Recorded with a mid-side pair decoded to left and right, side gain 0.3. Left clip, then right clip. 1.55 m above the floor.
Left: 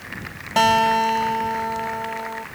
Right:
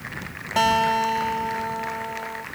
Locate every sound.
0.6 s a guitar: 30° left